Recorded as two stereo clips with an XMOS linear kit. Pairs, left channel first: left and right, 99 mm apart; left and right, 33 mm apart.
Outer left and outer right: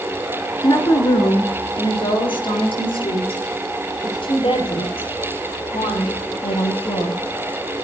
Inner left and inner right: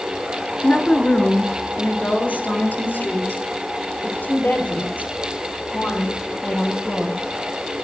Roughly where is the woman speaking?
Left.